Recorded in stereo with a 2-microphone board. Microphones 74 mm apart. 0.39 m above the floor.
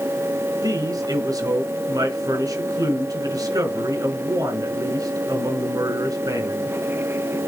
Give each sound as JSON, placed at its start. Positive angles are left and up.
{"t": 0.6, "sound": "a man speaking", "side_deg": -60, "distance_m": 4.0}